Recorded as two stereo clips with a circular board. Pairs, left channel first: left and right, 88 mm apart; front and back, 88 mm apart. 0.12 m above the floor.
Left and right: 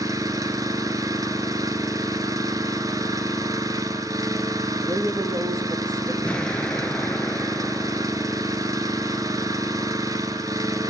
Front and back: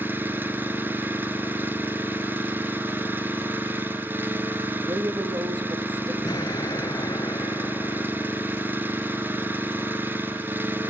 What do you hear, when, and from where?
0.0 s an engine running: 120° right, 2 m
4.8 s a woman speaking: 135° right, 4.5 m
6.2 s an explosion: 15° left, 0.6 m